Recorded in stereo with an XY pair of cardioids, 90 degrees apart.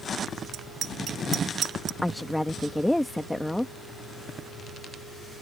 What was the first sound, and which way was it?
A bicycle bell, 70° right.